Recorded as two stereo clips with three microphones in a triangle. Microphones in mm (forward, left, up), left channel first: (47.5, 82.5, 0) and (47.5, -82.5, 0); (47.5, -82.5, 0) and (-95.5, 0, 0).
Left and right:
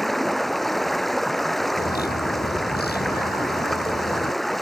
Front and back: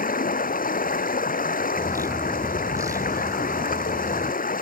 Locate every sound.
0.0 s running water: straight ahead
1.8 s a bird: 80° left